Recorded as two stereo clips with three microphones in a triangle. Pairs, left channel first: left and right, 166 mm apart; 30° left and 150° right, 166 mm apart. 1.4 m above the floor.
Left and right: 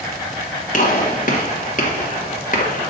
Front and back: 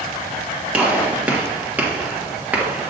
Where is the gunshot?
130° left, 1.5 m.